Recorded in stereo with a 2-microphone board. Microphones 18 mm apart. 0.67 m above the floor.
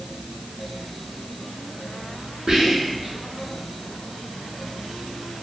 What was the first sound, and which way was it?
Whispering, 50° right (ahead or behind).